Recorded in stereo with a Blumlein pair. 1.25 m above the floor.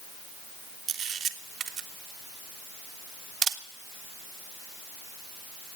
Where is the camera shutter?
25° right, 0.7 m.